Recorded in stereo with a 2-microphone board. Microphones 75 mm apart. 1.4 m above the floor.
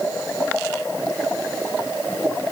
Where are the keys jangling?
I don't hear keys jangling.